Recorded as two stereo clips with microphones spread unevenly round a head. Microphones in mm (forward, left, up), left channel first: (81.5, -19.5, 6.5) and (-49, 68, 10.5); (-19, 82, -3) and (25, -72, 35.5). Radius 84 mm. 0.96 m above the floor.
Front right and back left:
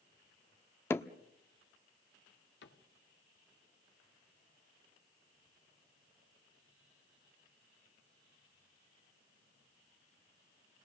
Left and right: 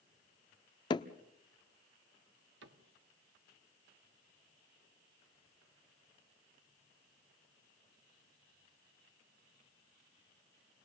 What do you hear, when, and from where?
0.9 s hammering: 40° left, 0.9 m
2.6 s a cupboard door: 55° right, 1.5 m